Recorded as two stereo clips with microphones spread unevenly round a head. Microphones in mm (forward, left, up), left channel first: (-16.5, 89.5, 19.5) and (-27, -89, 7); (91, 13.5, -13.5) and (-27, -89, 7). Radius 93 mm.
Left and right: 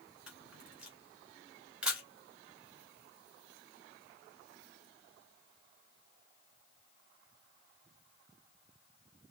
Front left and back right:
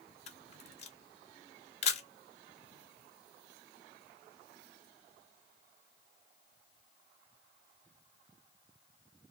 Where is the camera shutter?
5° right, 1.7 m.